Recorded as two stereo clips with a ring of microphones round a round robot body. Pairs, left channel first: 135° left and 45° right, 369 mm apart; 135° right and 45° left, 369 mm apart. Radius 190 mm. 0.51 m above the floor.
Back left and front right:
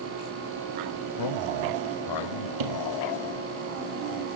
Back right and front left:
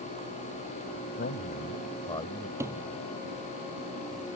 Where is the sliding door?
40° right.